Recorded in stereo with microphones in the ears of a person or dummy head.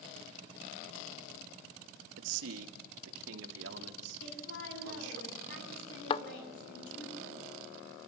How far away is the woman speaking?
About 8 m.